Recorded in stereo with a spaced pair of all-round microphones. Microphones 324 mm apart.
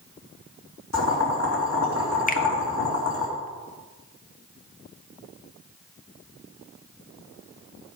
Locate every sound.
0.9 s boiling: 55° left (ahead or behind), 3 m
2.3 s a finger snap: 25° left (ahead or behind), 0.8 m